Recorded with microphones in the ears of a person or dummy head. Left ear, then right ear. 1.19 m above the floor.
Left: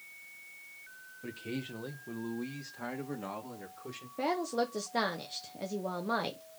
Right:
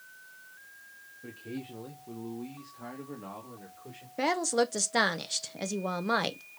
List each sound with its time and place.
1.2 s a man speaking: 30° left (ahead or behind), 0.8 m; by 4.1 s 75° left (ahead or behind), 2 m
4.2 s a woman speaking: 50° right (ahead or behind), 0.7 m